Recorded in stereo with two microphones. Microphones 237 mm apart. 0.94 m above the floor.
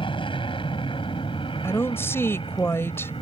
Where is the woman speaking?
10° left (ahead or behind).